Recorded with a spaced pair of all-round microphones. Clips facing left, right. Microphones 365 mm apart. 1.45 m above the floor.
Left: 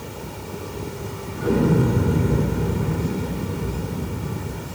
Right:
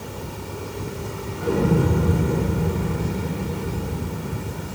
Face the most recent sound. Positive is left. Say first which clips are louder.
# left 2 dB
turn(degrees=25)  # may be behind; listen again after turning